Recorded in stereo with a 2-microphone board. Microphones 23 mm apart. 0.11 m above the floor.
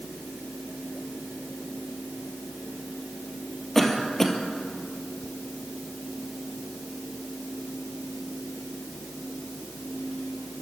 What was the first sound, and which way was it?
A cough, 10° left (ahead or behind).